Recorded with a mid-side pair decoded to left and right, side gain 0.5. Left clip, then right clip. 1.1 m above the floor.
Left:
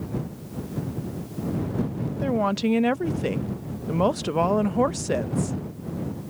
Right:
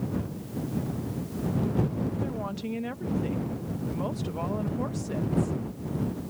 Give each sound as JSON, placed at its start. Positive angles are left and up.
{"t": 2.2, "sound": "a woman speaking", "azimuth_deg": 65}